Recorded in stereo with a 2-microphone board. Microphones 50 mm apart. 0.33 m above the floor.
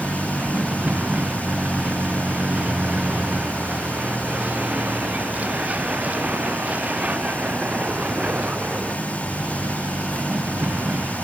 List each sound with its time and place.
0.0 s a vehicle: 25° right (ahead or behind); by 11.2 s 30° right (ahead or behind)